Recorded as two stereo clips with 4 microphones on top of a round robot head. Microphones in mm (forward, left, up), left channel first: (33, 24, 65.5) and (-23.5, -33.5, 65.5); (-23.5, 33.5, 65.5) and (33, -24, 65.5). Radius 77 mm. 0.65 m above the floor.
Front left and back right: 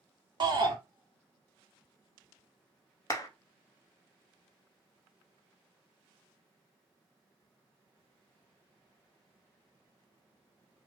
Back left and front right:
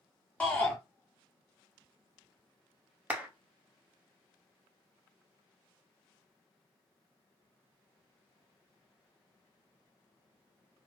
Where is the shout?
150° right, 1.5 m.